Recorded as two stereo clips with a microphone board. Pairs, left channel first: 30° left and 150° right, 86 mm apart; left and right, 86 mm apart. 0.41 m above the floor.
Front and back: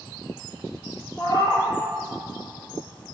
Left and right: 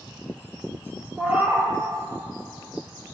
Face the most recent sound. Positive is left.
turn(degrees=-15)